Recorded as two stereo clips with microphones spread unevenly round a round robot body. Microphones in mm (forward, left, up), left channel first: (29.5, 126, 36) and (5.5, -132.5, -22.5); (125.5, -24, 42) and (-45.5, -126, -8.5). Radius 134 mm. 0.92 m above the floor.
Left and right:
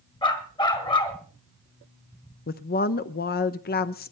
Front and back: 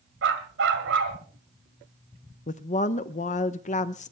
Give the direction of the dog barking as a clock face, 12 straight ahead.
7 o'clock.